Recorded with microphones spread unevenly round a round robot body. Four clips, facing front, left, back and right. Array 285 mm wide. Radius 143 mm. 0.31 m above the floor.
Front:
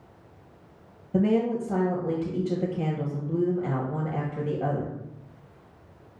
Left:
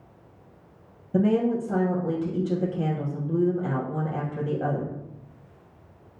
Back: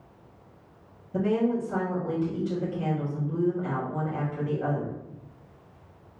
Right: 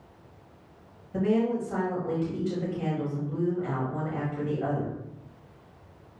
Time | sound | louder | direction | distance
1.1 | a woman speaking | left 3 dB, front 2 dB | 55° left | 2.5 m